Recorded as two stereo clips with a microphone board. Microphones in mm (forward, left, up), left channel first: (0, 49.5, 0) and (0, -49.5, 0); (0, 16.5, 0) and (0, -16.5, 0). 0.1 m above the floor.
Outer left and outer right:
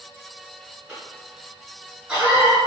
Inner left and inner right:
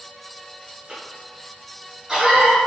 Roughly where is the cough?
Centre.